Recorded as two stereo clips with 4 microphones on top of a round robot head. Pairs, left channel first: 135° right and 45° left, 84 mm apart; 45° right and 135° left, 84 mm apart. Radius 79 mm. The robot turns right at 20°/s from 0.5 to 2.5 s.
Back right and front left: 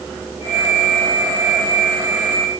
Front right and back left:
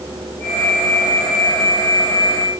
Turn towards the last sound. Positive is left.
No sound to turn to.